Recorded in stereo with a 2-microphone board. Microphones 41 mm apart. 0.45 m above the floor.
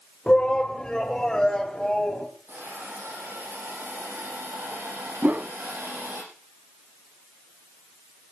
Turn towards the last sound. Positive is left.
turn(degrees=-40)  # may be behind; listen again after turning